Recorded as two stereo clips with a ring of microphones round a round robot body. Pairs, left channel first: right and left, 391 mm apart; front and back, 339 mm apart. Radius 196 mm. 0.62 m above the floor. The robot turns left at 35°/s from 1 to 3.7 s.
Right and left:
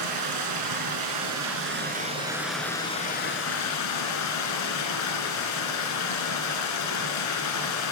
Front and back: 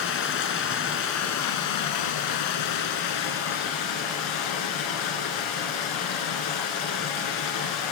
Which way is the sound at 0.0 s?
55° left.